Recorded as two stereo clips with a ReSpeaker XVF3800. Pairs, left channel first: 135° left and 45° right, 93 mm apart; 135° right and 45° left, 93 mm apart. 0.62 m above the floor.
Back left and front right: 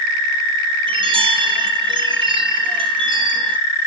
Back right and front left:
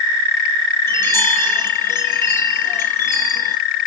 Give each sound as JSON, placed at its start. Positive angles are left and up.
{"t": 0.9, "sound": "a chime", "azimuth_deg": -70, "distance_m": 2.5}